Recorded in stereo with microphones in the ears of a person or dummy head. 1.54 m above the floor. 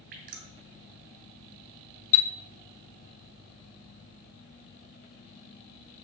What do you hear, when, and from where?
0.1 s dripping: 50° right (ahead or behind), 2.5 m
2.1 s a chime: 70° left (ahead or behind), 0.5 m